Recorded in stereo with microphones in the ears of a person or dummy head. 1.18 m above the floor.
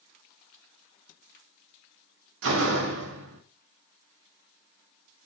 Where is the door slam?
80° right, 1.3 m.